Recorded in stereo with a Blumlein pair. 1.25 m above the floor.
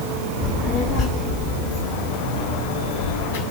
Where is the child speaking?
15° left, 1.3 m; by 3.4 s 50° left, 5.5 m.